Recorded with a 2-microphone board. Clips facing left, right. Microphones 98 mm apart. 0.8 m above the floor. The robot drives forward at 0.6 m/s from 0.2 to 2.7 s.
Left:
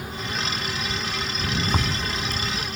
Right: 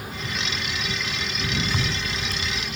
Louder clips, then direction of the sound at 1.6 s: Left 2 dB; 45° left (ahead or behind).